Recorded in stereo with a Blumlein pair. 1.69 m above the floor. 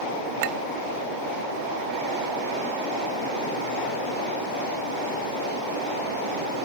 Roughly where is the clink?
Ahead right.